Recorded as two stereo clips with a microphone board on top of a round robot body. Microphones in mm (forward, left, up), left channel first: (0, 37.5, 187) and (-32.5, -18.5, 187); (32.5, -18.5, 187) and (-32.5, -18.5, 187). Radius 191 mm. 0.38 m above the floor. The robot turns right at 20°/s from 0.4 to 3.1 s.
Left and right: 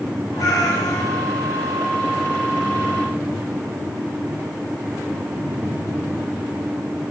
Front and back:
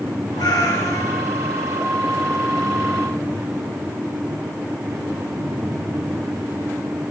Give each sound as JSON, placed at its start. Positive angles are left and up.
{"t": 0.4, "sound": "a cat meowing", "azimuth_deg": 25, "distance_m": 5.0}